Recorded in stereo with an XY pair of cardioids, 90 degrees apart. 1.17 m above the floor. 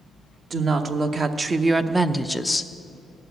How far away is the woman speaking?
About 1.2 m.